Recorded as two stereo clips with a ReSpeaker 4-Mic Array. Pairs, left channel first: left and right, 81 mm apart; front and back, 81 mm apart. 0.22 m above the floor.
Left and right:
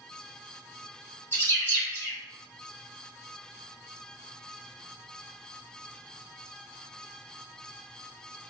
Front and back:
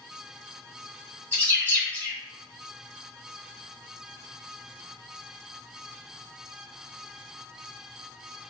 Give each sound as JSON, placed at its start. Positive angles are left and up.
{"t": 1.3, "sound": "a bird", "azimuth_deg": 60, "distance_m": 1.8}